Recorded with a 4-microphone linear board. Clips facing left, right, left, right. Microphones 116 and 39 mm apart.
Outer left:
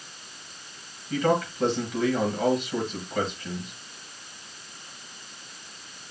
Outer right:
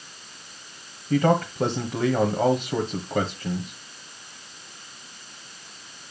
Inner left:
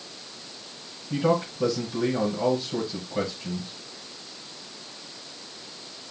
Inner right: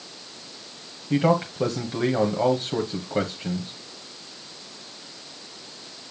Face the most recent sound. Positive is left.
turn(degrees=-40)  # may be behind; listen again after turning